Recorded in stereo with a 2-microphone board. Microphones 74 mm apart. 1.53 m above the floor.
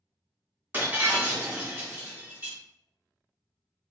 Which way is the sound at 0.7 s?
25° right (ahead or behind).